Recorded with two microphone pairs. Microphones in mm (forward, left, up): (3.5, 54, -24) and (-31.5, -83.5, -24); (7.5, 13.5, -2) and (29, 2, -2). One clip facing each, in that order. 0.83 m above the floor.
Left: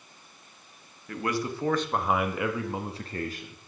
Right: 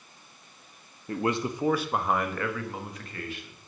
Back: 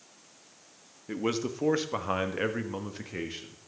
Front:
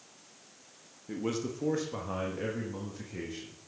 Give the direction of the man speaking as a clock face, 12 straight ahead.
5 o'clock.